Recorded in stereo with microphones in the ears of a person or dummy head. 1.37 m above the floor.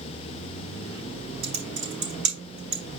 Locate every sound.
1.4 s typing on a keyboard: 75° right (ahead or behind), 4.5 m